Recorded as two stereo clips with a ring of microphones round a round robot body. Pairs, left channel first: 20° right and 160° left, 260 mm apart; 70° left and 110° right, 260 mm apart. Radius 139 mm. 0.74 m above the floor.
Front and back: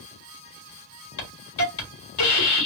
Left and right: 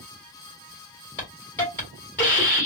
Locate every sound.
1.2 s a hiss: 15° right, 1.7 m